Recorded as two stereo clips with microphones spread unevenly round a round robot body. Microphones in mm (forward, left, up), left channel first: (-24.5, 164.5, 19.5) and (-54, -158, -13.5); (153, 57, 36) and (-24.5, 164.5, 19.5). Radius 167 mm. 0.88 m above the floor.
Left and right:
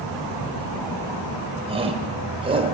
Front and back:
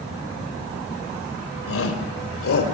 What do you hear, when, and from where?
1.7 s a shout: 20° right, 3.5 m